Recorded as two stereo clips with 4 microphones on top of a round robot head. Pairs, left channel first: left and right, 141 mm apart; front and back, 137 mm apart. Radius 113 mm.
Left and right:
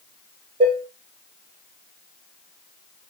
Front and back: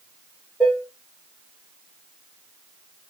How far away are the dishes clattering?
About 0.9 m.